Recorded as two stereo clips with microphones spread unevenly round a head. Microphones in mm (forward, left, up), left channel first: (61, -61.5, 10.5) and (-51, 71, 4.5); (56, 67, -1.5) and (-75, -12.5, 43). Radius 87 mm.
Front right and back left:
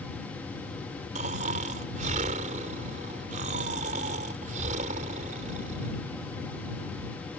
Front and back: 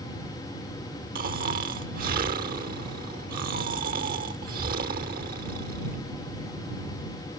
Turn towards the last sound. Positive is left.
turn(degrees=180)